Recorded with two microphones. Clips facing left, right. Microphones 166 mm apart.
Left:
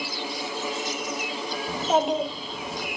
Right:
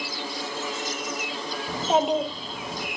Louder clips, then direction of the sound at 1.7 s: Right 1 dB; centre (ahead or behind).